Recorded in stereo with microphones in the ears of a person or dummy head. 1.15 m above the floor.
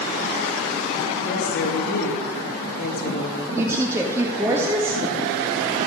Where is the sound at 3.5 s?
15° right (ahead or behind), 1.7 m.